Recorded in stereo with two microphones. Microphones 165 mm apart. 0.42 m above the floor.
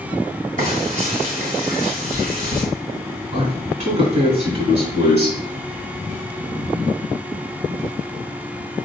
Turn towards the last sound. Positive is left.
turn(degrees=-45)  # may be behind; listen again after turning